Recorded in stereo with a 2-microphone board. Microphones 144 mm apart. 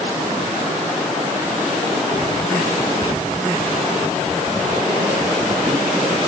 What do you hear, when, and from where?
3.0 s whispering: 30° left (ahead or behind), 1.1 m